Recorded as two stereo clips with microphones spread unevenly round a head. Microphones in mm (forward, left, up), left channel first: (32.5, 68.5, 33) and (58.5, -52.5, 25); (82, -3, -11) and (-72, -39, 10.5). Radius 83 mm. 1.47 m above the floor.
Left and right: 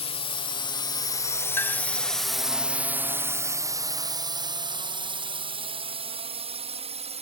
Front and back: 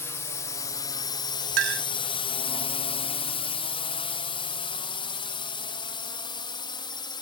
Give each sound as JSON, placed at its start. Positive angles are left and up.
{"t": 0.0, "sound": "a drone", "azimuth_deg": 80}
{"t": 1.6, "sound": "a clink", "azimuth_deg": 180}